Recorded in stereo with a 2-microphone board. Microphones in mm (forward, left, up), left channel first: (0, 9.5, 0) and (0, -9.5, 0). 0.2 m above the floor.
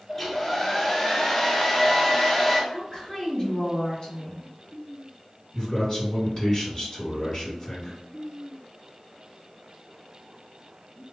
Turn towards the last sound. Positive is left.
turn(degrees=30)  # may be behind; listen again after turning